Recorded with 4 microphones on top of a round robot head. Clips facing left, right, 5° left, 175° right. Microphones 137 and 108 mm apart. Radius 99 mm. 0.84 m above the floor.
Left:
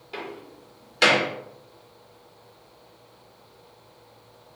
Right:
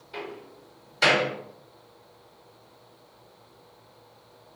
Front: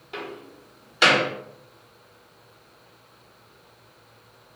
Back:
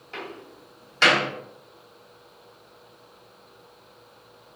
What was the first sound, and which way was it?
A door slam, 80° left.